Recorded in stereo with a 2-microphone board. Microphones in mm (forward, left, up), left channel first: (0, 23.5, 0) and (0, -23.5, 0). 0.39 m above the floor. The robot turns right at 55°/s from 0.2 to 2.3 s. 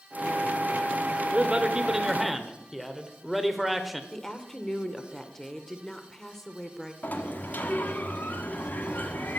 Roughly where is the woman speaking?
Centre.